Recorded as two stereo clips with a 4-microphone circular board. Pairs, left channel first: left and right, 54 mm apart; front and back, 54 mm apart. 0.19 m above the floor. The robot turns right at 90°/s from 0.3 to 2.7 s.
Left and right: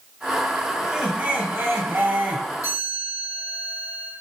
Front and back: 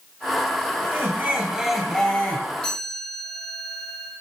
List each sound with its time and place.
0.8 s laughter: 175° left, 1.6 m; by 2.5 s 35° right, 1.6 m
2.6 s a chime: 80° left, 3.5 m; by 4.1 s 85° left, 3.5 m